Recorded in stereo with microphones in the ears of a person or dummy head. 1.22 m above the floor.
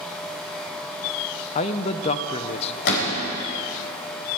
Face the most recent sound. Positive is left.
turn(degrees=75)  # may be behind; listen again after turning